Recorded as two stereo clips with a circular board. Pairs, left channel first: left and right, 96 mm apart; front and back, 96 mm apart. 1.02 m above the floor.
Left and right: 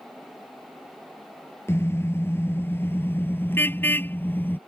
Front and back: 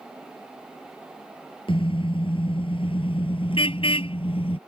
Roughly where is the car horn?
Ahead left.